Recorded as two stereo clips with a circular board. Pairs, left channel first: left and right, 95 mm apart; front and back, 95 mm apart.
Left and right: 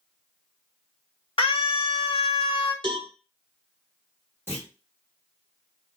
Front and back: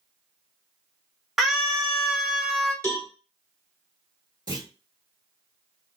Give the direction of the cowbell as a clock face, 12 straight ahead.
2 o'clock.